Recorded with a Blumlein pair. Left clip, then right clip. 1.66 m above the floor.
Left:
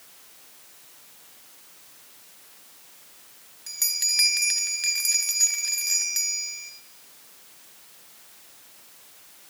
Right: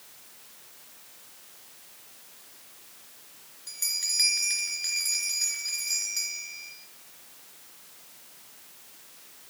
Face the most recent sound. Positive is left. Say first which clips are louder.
# left 4 dB
turn(degrees=40)